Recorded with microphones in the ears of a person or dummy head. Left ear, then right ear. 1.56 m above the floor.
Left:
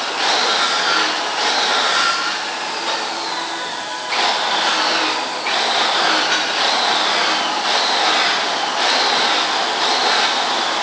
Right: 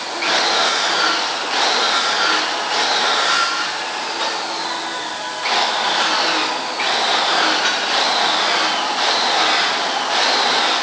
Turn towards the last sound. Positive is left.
No sound to turn to.